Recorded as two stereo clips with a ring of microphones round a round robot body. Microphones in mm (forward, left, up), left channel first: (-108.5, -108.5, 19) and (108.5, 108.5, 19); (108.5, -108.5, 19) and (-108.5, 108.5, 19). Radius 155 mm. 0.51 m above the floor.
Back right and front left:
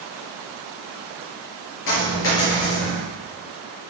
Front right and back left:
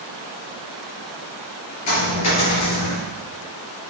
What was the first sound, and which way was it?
A dropped coin, 85° right.